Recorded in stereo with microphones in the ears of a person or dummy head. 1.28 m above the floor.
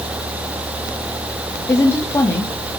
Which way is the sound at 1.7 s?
10° left (ahead or behind).